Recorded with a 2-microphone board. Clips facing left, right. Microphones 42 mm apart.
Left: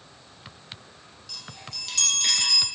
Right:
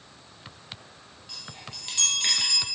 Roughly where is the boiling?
No boiling in this recording.